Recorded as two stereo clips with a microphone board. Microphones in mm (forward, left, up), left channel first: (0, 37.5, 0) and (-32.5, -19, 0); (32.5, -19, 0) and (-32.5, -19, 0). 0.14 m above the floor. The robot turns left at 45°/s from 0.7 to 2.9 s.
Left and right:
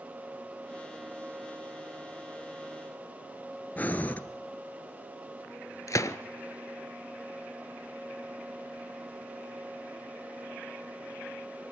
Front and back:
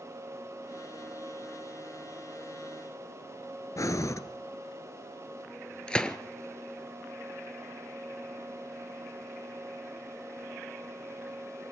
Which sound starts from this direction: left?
A gunshot, at 5.9 s.